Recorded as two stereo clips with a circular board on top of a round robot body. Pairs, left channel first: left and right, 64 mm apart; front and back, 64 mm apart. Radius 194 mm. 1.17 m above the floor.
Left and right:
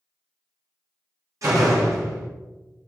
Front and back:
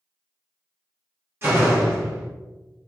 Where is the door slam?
130° right, 2 m.